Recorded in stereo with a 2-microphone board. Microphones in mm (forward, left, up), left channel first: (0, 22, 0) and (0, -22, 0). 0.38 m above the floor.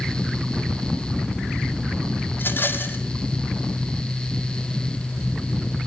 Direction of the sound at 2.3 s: 50° left (ahead or behind).